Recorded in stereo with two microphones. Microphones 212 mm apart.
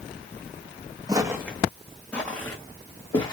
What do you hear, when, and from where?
1.1 s footsteps: 20° right (ahead or behind), 0.7 m; by 3.3 s 20° left (ahead or behind), 1.6 m